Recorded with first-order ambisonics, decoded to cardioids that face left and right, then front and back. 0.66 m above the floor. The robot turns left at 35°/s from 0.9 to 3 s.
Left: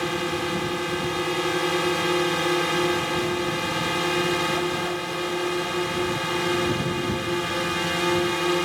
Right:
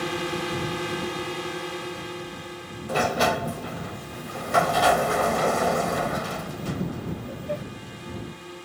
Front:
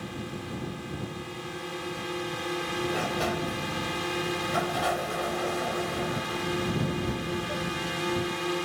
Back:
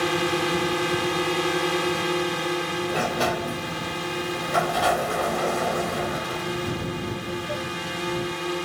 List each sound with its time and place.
0.0 s a drone: 175° left; by 8.7 s 100° left
2.9 s a sliding door: 115° right